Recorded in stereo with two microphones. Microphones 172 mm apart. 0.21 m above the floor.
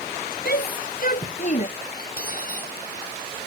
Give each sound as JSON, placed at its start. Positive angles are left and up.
{"t": 0.5, "sound": "a shout", "side_deg": 60}
{"t": 2.0, "sound": "cutlery clinking", "side_deg": 55}